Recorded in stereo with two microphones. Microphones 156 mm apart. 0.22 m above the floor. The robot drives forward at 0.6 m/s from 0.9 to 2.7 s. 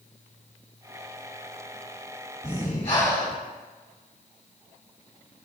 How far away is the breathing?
About 1.9 m.